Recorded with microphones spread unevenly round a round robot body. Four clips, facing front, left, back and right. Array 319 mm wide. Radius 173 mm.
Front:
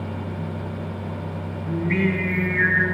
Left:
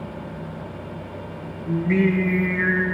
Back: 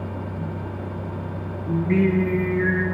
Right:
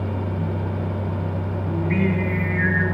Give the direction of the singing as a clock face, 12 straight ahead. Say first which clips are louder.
Left 3 dB, back 3 dB; 7 o'clock.